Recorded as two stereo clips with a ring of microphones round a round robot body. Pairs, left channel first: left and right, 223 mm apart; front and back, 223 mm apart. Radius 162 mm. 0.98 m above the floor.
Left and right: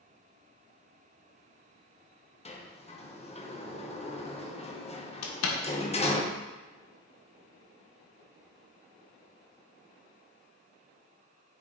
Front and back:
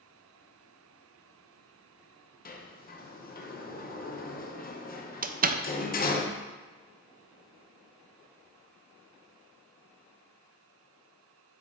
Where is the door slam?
125° left, 0.6 m.